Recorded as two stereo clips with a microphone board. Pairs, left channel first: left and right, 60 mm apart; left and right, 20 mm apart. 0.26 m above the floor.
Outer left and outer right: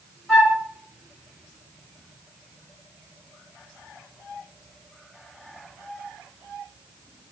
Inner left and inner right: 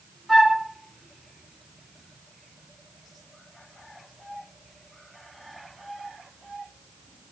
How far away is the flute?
About 2 m.